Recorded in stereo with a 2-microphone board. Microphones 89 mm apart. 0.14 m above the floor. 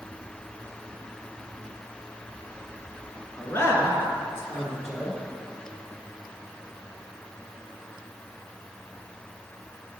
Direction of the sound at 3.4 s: 30° left (ahead or behind).